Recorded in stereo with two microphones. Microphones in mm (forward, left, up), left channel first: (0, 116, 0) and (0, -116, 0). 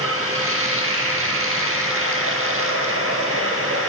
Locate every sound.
0.0 s running water: 70° right (ahead or behind), 1.4 m